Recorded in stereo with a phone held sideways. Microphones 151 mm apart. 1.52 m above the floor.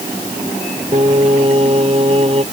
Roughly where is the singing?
Right.